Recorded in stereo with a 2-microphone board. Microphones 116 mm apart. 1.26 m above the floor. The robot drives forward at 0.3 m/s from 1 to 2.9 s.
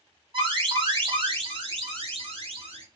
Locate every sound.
0.3 s an alarm: 45° right (ahead or behind), 1.1 m; by 2.9 s 60° right (ahead or behind), 0.9 m